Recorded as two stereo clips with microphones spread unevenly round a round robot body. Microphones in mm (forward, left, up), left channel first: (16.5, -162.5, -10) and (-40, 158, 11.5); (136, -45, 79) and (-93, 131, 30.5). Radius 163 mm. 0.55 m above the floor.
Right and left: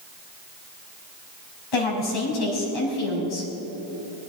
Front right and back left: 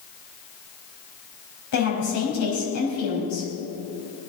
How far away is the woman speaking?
About 5 m.